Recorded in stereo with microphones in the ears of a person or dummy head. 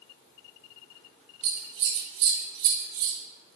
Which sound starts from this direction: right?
Scissors, at 1.4 s.